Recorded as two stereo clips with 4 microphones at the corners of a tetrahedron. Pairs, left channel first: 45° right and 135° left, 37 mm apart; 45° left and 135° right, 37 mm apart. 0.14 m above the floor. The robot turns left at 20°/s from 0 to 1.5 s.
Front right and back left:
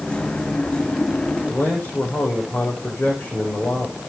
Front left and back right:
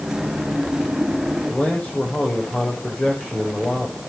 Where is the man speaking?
5° right, 6 m.